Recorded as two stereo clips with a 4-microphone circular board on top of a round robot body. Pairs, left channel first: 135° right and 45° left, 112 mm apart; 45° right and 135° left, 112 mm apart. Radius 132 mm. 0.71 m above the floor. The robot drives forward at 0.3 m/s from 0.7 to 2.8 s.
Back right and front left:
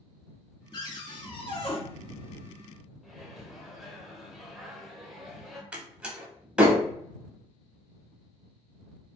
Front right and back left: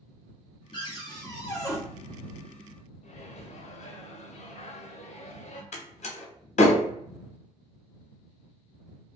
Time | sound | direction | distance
0.7 | a cupboard door | 85° right | 1.0 m
3.0 | a microwave | 45° right | 0.5 m
5.7 | a door slam | 35° right | 0.6 m